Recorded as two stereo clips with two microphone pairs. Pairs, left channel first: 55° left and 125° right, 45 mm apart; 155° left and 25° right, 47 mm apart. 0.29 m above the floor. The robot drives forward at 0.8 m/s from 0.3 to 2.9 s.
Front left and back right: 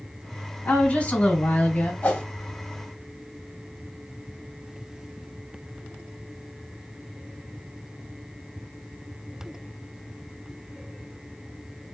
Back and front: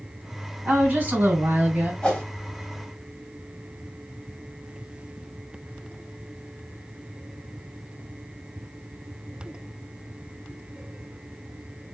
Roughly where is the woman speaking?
Ahead.